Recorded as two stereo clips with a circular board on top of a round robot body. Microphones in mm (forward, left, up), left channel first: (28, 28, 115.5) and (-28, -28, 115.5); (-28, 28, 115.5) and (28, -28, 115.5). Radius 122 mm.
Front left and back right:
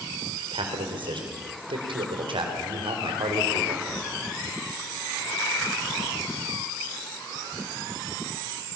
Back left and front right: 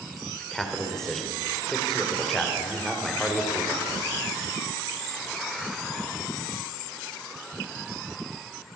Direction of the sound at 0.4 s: 140° right.